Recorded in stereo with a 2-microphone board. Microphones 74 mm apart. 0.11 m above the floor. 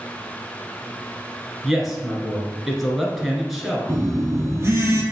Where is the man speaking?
Centre (ahead or behind), 1.6 m.